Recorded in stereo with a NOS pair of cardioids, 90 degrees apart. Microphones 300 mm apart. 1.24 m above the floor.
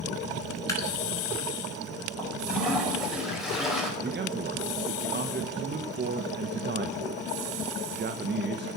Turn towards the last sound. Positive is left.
turn(degrees=-35)